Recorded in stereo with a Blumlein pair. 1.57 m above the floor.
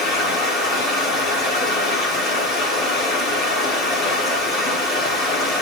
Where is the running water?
30° left, 8.5 m.